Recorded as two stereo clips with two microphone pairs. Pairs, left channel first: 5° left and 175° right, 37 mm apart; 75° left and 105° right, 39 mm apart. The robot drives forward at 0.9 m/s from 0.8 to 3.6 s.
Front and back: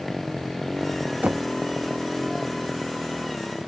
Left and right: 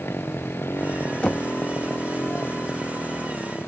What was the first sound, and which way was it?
A motorcycle, 90° left.